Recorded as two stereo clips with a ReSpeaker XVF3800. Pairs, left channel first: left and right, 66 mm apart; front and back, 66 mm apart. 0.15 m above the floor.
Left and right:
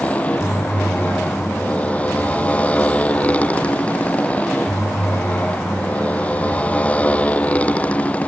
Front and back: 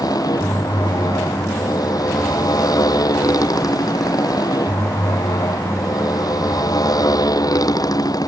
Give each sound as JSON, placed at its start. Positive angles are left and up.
{"t": 0.0, "sound": "a motorcycle", "azimuth_deg": 20}